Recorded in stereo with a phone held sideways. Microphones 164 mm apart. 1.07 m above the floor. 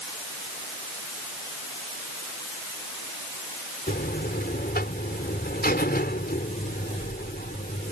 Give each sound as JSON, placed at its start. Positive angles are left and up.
{"t": 3.9, "sound": "a buzzer", "side_deg": 70}